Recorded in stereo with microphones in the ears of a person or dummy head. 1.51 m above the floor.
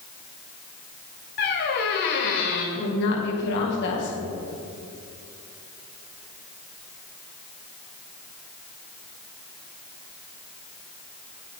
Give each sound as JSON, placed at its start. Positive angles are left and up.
{"t": 1.4, "sound": "a squeak", "side_deg": 45, "distance_m": 1.5}
{"t": 2.8, "sound": "a woman speaking", "side_deg": 60, "distance_m": 1.7}